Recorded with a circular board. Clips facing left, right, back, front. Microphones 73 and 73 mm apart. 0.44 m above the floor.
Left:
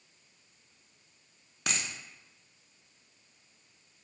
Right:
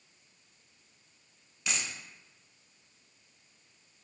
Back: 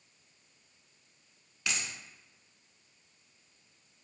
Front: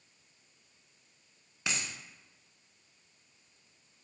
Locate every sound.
1.7 s a dropped coin: 60° left, 0.8 m